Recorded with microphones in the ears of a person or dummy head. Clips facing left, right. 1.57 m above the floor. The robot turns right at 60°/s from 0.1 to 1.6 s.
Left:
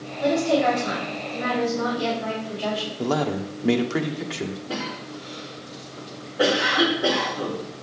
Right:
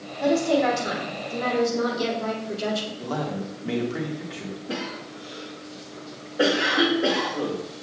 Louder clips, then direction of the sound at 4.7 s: Left 1 dB; 25° right (ahead or behind).